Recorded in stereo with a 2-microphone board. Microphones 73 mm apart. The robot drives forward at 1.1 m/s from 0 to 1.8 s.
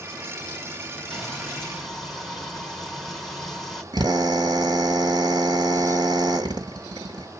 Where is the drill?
75° right (ahead or behind), 1.5 m.